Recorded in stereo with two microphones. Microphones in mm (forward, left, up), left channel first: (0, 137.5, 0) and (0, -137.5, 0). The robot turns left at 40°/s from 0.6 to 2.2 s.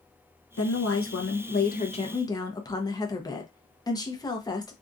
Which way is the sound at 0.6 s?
80° left.